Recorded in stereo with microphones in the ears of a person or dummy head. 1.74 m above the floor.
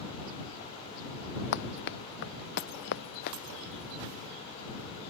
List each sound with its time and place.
1.5 s running footsteps: 60° left (ahead or behind)